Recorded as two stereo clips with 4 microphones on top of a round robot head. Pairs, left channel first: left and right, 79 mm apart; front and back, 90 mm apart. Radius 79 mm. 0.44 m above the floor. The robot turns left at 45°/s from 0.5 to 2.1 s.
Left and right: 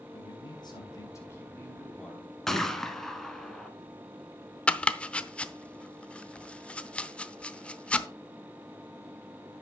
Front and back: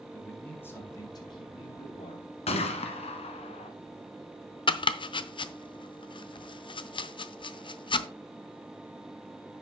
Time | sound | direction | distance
0.1 | a man speaking | 70° left | 4 m
2.5 | a gunshot | 5° left | 1.4 m
4.7 | chopping | 15° left | 0.7 m